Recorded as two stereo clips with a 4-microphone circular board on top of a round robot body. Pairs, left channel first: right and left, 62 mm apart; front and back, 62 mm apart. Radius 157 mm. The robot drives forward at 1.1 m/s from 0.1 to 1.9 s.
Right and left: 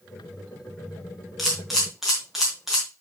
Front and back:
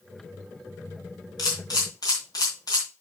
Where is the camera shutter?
Straight ahead, 1.1 m; by 2.9 s 10° left, 0.8 m.